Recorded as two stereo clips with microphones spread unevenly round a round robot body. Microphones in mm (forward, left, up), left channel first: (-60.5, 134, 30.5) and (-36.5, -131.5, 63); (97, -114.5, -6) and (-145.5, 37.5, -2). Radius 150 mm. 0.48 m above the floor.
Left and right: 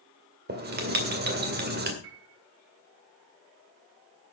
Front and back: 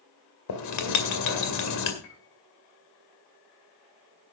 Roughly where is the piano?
Ahead right.